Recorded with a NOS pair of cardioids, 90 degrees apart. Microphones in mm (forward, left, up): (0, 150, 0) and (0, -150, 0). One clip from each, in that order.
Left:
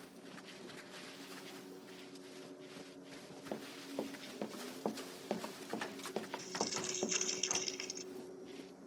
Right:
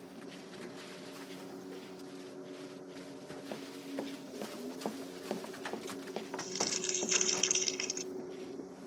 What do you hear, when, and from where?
0.0 s a machine running: 45° right
3.5 s running footsteps: 5° left
6.4 s crumpling: 45° right